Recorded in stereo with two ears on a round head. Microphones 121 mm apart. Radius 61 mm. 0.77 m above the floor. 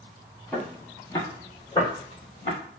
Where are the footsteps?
5° left (ahead or behind), 0.8 m; by 2.6 s 50° left (ahead or behind), 1.2 m.